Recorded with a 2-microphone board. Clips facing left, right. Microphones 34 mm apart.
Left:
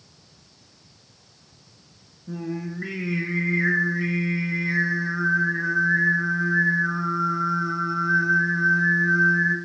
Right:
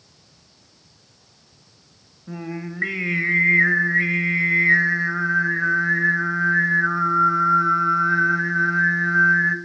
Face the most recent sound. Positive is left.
turn(degrees=-60)  # may be behind; listen again after turning